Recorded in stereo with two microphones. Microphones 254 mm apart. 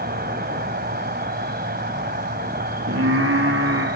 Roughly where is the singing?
Right.